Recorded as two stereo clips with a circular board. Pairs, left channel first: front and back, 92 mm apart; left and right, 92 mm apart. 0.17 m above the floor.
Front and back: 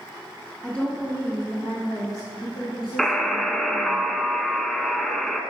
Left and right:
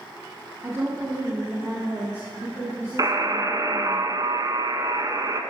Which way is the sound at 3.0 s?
85° right.